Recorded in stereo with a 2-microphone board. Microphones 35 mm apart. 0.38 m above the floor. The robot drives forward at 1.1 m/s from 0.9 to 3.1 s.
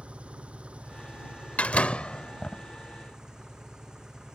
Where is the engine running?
40° right (ahead or behind); by 4.4 s 25° right (ahead or behind).